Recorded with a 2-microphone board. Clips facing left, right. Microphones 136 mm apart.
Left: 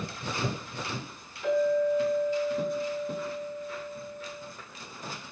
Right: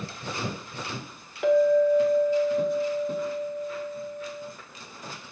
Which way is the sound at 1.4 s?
75° right (ahead or behind).